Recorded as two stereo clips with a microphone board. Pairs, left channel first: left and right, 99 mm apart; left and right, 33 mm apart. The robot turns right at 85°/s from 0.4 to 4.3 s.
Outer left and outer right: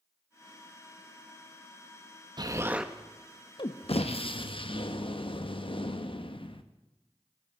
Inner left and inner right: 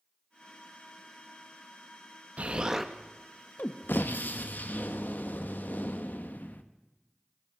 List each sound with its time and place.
2.4 s an explosion: 50° right, 0.8 m; by 6.6 s 115° left, 0.8 m